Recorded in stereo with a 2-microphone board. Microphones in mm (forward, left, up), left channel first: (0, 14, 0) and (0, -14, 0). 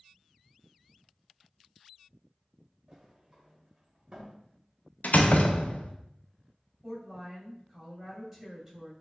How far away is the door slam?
About 0.5 m.